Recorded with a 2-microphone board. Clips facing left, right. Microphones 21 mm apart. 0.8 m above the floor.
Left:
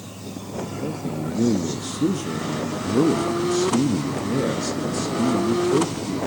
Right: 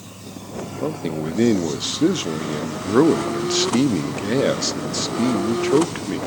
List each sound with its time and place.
0.8 s a man speaking: 45° right (ahead or behind), 0.9 m